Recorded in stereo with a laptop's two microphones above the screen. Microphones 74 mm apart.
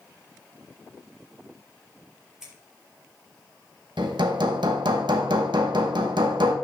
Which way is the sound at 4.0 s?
85° right.